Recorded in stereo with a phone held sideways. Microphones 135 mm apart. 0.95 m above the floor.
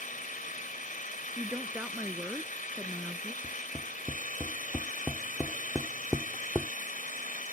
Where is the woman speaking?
10° right (ahead or behind).